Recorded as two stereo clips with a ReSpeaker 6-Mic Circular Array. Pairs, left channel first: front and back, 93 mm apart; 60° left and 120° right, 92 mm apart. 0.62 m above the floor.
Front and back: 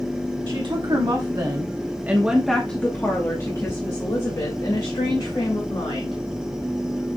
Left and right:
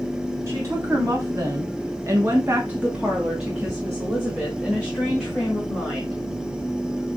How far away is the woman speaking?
About 2 m.